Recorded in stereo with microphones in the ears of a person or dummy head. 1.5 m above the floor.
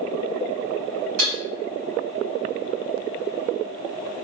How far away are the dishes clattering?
About 1.3 m.